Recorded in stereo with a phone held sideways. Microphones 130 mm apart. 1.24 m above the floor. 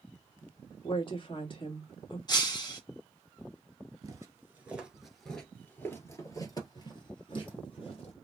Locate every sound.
0.8 s a woman speaking: 40° left (ahead or behind), 1.6 m
2.3 s breaking glass: 35° left (ahead or behind), 1.1 m
4.0 s footsteps: 25° right (ahead or behind), 1.4 m; by 8.1 s 50° left (ahead or behind), 2.5 m